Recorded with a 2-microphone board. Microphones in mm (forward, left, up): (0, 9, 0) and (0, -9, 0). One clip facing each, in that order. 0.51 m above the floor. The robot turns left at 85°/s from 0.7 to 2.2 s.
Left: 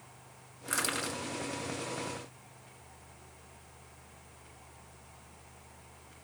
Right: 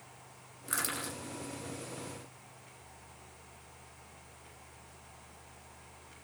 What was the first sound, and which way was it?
Crushing, 10° left (ahead or behind).